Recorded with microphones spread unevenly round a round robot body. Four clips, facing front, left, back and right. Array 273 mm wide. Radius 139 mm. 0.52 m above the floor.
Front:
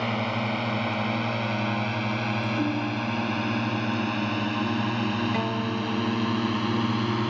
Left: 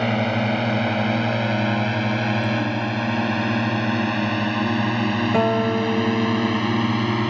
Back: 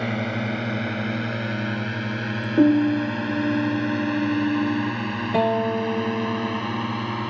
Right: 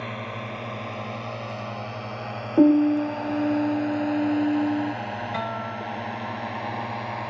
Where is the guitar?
125° left.